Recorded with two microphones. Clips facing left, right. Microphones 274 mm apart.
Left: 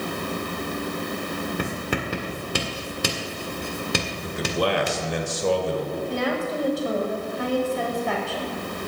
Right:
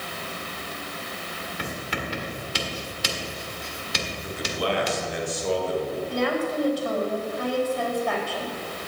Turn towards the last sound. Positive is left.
turn(degrees=25)  # may be behind; listen again after turning